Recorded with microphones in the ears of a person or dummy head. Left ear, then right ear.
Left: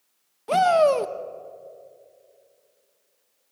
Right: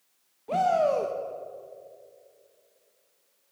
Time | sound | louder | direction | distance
0.5 | a shout | left 6 dB | 55° left (ahead or behind) | 1.4 m